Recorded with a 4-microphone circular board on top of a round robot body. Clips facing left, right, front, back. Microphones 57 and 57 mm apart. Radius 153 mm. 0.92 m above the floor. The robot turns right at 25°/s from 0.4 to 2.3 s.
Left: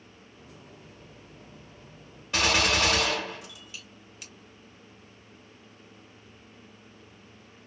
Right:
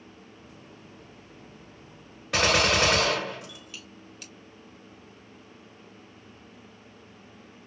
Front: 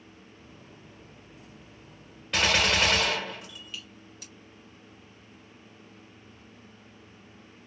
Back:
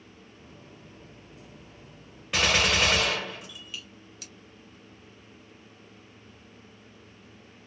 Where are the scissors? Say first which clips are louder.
Left 3 dB, back 1 dB; 175° left, 2.5 m.